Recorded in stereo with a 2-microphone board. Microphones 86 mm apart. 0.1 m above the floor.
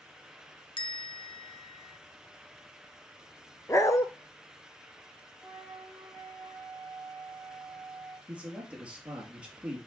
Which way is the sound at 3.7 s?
35° left (ahead or behind).